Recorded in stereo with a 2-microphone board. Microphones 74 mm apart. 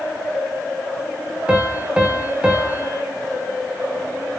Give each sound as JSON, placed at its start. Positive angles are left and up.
{"t": 1.5, "sound": "a piano", "side_deg": -15, "distance_m": 4.0}